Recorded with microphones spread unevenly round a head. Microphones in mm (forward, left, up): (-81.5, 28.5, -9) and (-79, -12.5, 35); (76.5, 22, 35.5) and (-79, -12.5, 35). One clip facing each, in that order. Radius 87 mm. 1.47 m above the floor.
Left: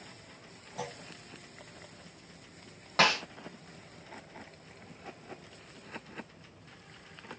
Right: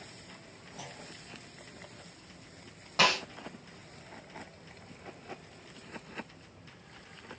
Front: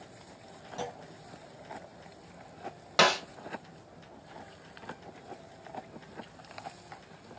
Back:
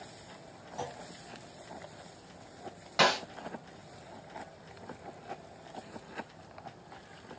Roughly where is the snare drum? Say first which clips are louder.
Left 1 dB, front 2 dB; ahead.